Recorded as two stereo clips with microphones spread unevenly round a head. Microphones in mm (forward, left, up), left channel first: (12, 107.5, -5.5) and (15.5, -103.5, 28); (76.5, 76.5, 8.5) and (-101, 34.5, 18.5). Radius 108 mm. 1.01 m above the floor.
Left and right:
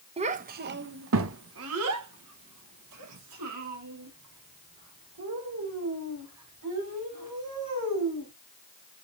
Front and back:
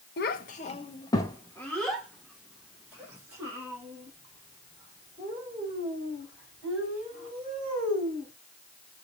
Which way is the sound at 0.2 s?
25° right.